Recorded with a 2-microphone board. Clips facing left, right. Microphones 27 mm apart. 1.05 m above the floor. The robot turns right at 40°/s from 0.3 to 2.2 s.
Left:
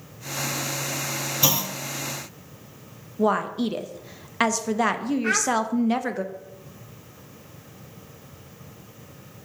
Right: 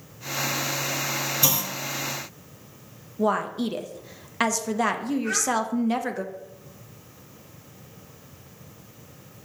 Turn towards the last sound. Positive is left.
turn(degrees=60)  # may be behind; listen again after turning